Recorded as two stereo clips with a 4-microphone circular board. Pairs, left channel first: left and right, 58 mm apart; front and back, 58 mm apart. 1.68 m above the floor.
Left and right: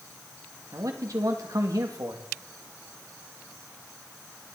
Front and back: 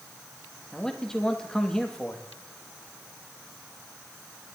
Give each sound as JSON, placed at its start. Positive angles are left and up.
{"t": 0.7, "sound": "a man speaking", "azimuth_deg": -80, "distance_m": 1.9}